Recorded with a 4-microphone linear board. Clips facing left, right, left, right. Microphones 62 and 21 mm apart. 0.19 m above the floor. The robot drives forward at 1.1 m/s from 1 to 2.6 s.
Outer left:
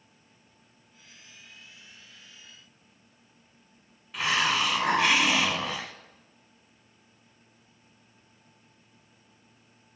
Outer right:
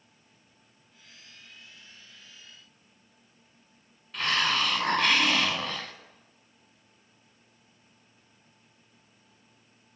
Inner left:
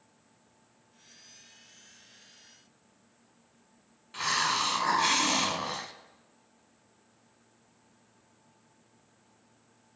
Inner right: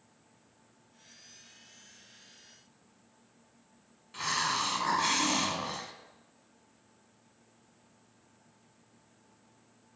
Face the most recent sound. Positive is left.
turn(degrees=10)  # may be behind; listen again after turning